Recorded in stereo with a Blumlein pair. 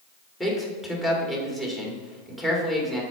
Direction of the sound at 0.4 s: 10° left.